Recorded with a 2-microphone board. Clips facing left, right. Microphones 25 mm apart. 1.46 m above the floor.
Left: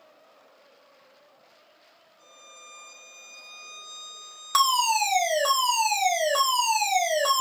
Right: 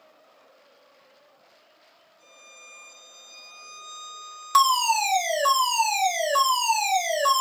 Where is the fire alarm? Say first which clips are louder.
Right 2 dB; centre (ahead or behind), 0.8 m.